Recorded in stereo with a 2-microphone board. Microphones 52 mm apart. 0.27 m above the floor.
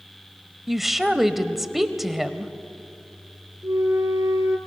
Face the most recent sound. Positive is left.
turn(degrees=-80)